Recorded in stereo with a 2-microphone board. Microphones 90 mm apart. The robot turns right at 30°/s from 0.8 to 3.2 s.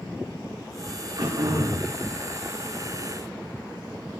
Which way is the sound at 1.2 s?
60° right (ahead or behind).